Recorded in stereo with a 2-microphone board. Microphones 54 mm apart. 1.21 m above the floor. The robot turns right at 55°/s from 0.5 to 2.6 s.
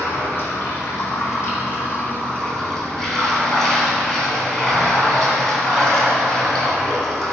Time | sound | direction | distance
0.0 | running water | 55° left | 2 m